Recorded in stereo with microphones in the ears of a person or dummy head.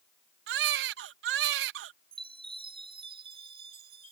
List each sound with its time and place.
0.5 s a baby crying: 65° right (ahead or behind)
2.1 s a chime: 25° right (ahead or behind)